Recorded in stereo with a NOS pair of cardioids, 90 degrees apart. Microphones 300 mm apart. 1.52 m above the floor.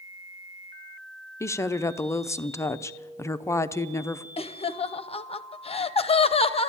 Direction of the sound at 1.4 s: 10° left.